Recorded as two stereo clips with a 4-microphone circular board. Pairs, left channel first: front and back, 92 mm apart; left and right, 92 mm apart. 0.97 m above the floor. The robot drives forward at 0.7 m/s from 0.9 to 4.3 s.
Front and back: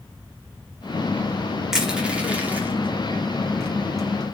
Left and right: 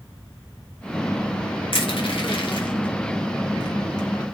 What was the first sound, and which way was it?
Crushing, 95° left.